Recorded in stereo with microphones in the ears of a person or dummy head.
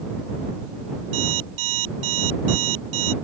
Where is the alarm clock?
85° right.